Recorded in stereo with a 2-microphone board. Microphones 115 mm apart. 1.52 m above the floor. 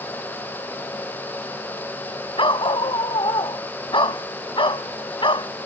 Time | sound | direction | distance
2.4 | a dog barking | 45° left (ahead or behind) | ?